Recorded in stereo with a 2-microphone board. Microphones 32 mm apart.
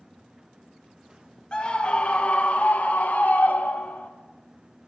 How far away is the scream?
About 1.3 m.